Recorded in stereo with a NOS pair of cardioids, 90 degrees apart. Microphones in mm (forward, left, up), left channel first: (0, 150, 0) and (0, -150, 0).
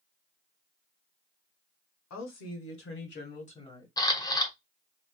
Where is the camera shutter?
15° left, 0.8 m.